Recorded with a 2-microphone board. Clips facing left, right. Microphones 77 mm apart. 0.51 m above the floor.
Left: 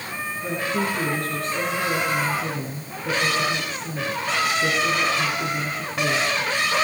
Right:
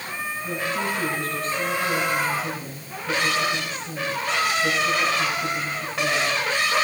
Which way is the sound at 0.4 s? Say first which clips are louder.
Left 3 dB; 75° left (ahead or behind).